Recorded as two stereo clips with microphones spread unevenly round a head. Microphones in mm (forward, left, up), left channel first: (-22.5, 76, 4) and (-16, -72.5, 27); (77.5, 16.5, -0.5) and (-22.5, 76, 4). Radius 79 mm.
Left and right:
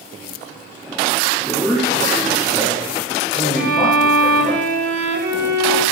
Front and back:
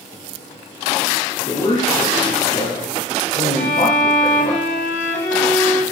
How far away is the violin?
About 0.9 m.